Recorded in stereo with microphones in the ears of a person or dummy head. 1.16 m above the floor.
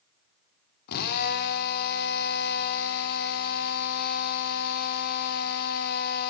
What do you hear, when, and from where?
0.9 s a drill: 55° left (ahead or behind), 1.1 m